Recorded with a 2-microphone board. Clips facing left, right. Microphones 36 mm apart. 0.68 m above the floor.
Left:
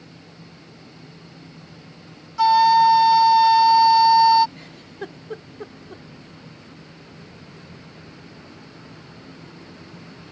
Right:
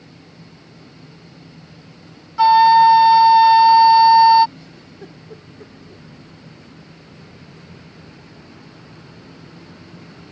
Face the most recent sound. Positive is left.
turn(degrees=65)  # may be behind; listen again after turning